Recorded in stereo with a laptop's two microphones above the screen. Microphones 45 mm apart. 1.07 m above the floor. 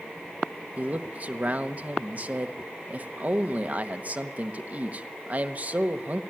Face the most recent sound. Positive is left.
turn(degrees=-35)  # may be behind; listen again after turning